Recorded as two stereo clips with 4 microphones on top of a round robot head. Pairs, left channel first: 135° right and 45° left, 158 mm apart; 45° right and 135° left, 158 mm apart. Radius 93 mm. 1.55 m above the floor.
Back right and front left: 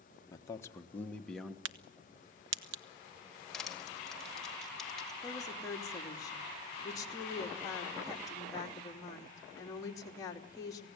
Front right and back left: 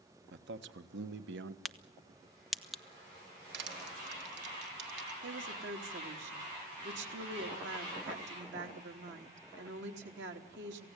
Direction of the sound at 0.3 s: 150° left.